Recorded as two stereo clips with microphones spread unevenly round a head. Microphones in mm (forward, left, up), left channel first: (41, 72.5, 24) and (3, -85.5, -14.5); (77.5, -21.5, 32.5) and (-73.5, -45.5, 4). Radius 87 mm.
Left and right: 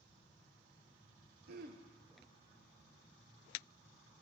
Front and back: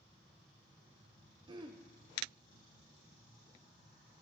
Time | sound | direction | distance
1.5 | throat clearing | 110° right | 0.5 m